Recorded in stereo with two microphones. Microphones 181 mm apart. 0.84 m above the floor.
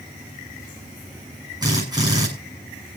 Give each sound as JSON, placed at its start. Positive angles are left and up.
{"t": 1.6, "sound": "a drill", "side_deg": -20, "distance_m": 7.5}